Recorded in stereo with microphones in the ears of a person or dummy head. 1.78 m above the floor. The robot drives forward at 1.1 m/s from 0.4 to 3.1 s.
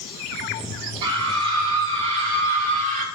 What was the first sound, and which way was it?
A scream, 30° right (ahead or behind).